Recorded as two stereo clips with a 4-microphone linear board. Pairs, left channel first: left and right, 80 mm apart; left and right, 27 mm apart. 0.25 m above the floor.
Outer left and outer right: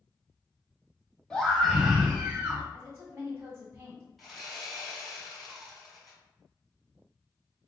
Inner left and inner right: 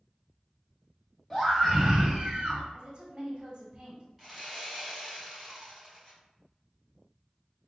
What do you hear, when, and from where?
1.3 s a scream: 10° left (ahead or behind), 1.2 m; by 2.6 s 30° right (ahead or behind), 1.2 m
2.7 s a woman speaking: 30° right (ahead or behind), 1.0 m
4.2 s sawing: centre (ahead or behind), 1.4 m